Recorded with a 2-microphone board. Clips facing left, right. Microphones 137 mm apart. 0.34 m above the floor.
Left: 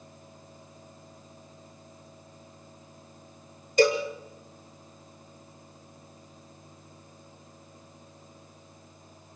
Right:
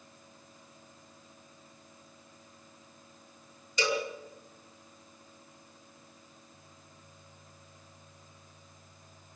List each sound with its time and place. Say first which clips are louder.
3.8 s a cowbell: left 9 dB; 50° left (ahead or behind), 6 m